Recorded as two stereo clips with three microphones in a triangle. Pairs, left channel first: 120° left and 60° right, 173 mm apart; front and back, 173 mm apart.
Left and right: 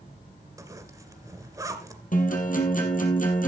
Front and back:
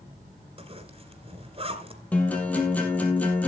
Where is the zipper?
125° right, 2 m.